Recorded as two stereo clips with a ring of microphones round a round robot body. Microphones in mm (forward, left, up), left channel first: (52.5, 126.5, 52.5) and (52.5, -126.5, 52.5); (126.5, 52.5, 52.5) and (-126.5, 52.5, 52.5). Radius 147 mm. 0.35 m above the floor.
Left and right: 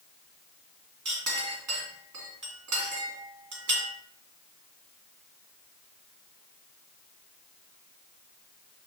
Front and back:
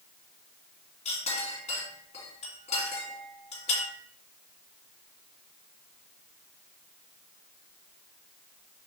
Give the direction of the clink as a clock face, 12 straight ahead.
2 o'clock.